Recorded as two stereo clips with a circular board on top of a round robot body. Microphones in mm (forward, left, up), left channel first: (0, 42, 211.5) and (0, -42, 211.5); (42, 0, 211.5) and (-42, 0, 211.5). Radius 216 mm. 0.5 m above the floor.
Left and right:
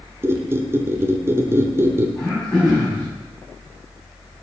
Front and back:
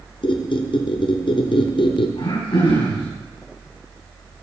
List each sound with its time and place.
0.2 s a squeak: 25° right, 0.8 m
2.2 s throat clearing: 5° left, 5 m